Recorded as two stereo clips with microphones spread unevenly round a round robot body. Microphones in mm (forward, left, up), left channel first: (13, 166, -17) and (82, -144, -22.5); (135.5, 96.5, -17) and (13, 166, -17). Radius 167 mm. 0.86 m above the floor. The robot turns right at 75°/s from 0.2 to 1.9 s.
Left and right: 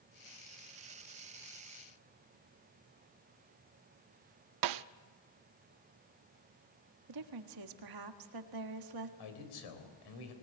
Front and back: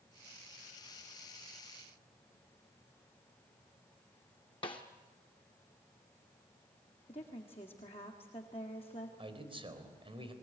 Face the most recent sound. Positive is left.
turn(degrees=100)